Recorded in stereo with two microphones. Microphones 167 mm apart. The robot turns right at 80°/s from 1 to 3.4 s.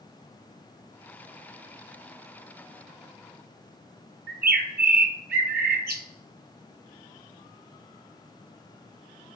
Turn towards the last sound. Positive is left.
turn(degrees=-75)  # may be behind; listen again after turning